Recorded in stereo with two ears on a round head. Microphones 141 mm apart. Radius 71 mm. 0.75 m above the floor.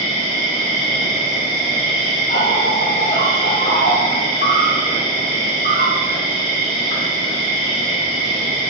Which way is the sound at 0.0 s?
65° left (ahead or behind).